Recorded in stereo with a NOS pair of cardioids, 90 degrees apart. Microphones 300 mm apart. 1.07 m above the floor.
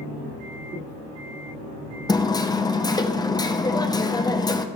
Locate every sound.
2.1 s hammering: 15° left, 0.8 m